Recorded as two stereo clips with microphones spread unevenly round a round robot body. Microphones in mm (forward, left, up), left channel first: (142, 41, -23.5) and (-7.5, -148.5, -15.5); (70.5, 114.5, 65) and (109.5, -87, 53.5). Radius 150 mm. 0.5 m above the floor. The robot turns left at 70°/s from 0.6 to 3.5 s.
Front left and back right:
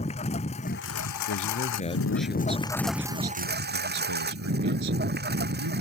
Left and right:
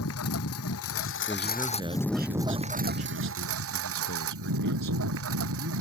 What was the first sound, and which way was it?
A lawn mower, 120° left.